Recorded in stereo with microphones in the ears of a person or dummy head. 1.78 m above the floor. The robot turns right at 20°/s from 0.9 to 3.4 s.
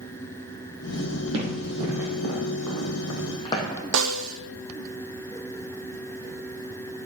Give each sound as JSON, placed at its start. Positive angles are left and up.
{"t": 1.3, "sound": "running footsteps", "side_deg": -35, "distance_m": 4.0}
{"t": 3.9, "sound": "a snare drum", "side_deg": -80, "distance_m": 0.6}